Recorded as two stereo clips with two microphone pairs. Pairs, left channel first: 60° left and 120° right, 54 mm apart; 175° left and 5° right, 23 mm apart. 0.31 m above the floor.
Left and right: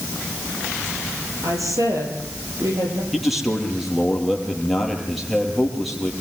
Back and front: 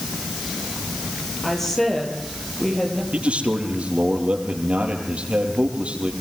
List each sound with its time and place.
1.4 s a woman speaking: 110° right, 7.5 m
3.1 s a man speaking: 30° right, 7 m